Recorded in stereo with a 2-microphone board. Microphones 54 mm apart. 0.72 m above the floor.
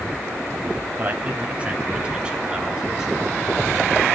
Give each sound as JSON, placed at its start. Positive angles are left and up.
{"t": 1.0, "sound": "a man speaking", "side_deg": -35, "distance_m": 3.5}